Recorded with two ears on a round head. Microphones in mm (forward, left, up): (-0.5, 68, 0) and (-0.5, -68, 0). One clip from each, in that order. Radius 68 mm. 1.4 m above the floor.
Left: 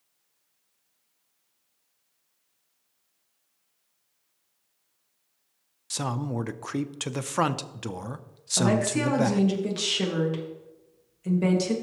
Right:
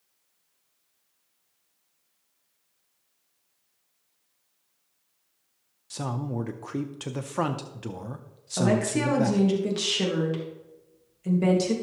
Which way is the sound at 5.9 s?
35° left (ahead or behind).